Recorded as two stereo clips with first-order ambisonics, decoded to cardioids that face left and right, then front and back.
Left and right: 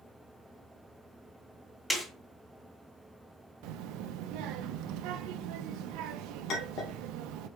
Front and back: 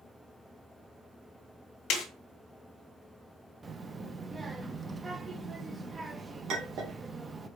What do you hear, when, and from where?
1.9 s a snare drum: 5° left, 1.6 m
3.6 s a child speaking: 100° right, 0.6 m
6.5 s a clink: 135° left, 1.5 m